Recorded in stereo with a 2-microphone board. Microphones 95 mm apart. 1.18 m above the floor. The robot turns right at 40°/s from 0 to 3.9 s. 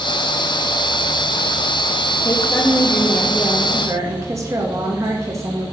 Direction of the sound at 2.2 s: 150° left.